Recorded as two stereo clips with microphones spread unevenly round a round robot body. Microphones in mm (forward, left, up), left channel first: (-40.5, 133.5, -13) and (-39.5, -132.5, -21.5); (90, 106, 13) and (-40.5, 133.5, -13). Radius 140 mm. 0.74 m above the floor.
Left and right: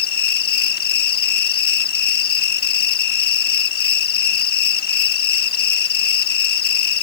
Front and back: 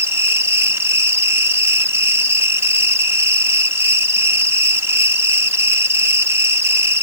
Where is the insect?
120° left.